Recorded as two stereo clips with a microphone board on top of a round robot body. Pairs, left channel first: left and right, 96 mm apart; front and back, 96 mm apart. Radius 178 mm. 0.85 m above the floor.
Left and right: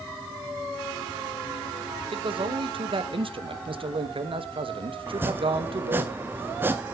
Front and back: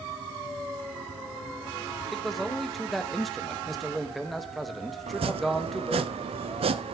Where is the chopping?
160° right, 0.6 m.